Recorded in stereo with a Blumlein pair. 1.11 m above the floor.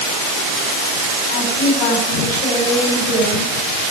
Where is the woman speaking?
40° left, 7 m.